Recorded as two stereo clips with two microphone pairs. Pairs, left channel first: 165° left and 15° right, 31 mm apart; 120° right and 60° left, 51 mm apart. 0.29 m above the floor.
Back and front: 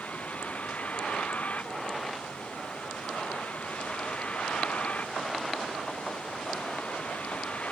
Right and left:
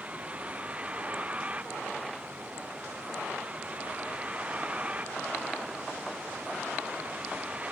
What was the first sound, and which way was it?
A vehicle, 125° left.